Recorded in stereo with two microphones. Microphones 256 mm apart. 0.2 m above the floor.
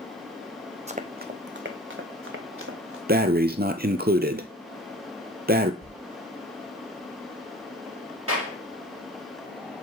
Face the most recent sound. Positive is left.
turn(degrees=-60)  # may be behind; listen again after turning